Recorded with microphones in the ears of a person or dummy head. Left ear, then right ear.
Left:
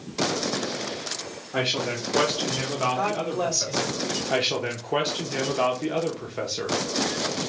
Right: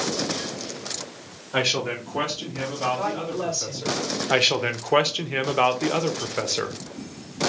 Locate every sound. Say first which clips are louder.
1.5 s a man speaking: right 2 dB; 25° right (ahead or behind), 0.7 m; by 3.9 s 55° left (ahead or behind), 2 m
2.9 s a woman speaking: left 2 dB; 70° left (ahead or behind), 1.7 m
4.3 s a man speaking: right 6 dB; 30° right (ahead or behind), 0.6 m